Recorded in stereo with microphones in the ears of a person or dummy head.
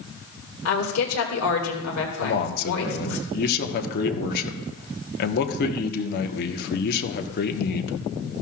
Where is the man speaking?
55° left (ahead or behind), 1.2 m.